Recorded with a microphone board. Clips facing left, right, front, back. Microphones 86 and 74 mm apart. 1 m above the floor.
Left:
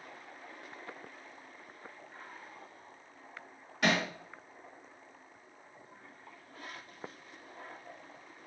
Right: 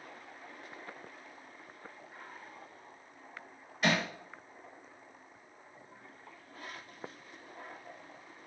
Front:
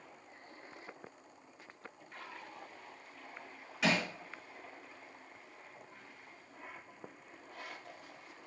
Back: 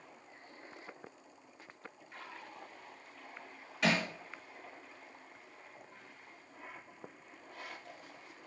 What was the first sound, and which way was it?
Hammering, 90° left.